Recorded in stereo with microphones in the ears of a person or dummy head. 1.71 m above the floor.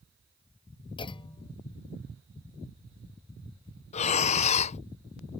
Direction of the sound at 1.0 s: 30° left (ahead or behind).